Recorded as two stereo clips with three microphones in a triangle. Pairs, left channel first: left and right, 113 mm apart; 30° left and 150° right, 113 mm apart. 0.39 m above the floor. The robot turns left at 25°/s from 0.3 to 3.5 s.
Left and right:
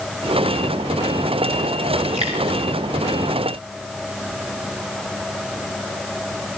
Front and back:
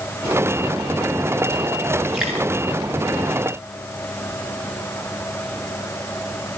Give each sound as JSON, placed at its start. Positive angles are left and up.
{"t": 2.1, "sound": "dripping", "azimuth_deg": -65, "distance_m": 7.5}